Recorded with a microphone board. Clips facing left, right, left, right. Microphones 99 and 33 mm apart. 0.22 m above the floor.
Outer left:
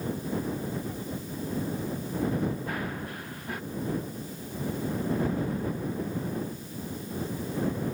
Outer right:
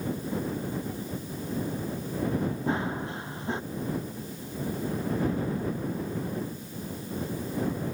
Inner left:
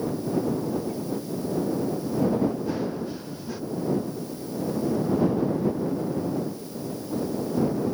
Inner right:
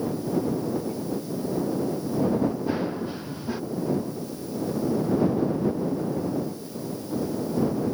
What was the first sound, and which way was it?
Running footsteps, 25° right (ahead or behind).